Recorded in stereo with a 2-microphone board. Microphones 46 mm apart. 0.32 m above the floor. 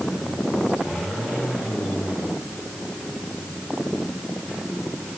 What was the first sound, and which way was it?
Only background noise.